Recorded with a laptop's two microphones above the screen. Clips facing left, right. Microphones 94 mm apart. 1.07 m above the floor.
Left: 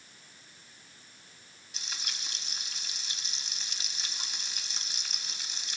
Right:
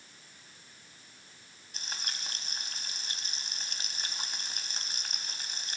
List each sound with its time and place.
1.7 s frying: 45° right (ahead or behind), 3 m